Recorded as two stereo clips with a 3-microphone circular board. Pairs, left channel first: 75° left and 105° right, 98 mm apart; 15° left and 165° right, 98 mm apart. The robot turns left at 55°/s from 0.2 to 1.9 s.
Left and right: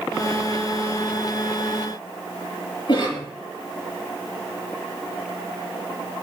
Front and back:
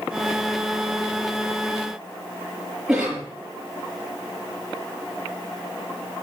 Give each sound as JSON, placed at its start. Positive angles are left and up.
{"t": 2.9, "sound": "a cough", "azimuth_deg": 110, "distance_m": 6.5}